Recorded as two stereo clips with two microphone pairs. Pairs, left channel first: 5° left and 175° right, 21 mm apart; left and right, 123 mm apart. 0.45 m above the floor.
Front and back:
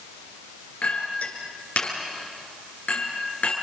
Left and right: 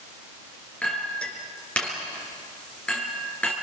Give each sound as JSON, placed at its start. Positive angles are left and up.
{"t": 0.8, "sound": "a clink", "azimuth_deg": 10, "distance_m": 5.0}